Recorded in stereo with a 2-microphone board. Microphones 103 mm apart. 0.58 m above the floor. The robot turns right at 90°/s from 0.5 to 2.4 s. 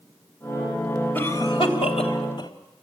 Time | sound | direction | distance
1.1 | a cough | 15° left (ahead or behind) | 3.5 m